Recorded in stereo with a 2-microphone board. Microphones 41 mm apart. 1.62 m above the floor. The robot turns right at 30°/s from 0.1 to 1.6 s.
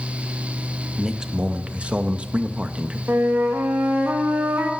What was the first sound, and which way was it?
A man speaking, 10° right (ahead or behind).